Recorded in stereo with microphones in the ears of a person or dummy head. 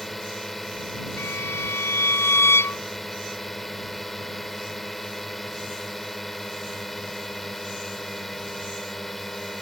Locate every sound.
0.0 s a drone: centre (ahead or behind)
1.2 s a violin: 15° left (ahead or behind)